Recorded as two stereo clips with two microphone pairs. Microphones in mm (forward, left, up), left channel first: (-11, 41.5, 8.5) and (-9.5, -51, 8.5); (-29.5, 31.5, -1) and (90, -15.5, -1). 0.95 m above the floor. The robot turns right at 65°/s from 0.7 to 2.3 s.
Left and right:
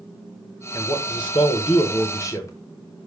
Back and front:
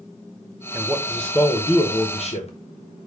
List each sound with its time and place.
0.7 s a man speaking: 40° left, 0.6 m; by 2.5 s 140° left, 0.6 m